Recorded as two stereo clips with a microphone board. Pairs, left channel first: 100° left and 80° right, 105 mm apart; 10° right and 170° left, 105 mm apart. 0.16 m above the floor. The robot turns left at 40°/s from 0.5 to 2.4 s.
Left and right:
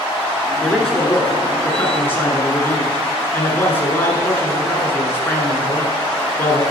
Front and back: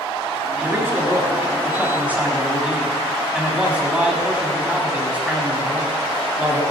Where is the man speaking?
Straight behind, 1.1 m; by 6.6 s 110° left, 1.1 m.